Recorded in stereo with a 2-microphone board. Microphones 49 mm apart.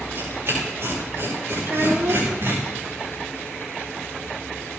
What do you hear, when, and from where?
0.1 s tearing paper: 55° right (ahead or behind), 8 m
1.6 s a child speaking: 65° right (ahead or behind), 2.5 m